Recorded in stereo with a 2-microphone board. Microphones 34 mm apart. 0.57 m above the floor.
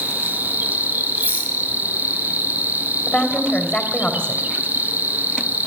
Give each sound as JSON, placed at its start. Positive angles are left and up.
{"t": 0.0, "sound": "an insect", "side_deg": -60, "distance_m": 0.9}
{"t": 1.2, "sound": "a rattle", "side_deg": -85, "distance_m": 4.5}
{"t": 3.1, "sound": "a woman speaking", "side_deg": 25, "distance_m": 3.0}